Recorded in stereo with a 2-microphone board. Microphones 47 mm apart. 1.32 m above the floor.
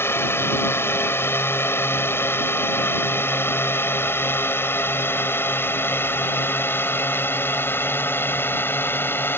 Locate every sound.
0.0 s a drone: 55° left (ahead or behind); by 9.4 s 50° left (ahead or behind)